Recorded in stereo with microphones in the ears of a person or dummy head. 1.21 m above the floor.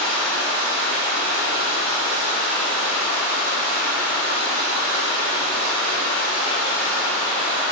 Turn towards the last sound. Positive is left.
turn(degrees=-35)  # may be behind; listen again after turning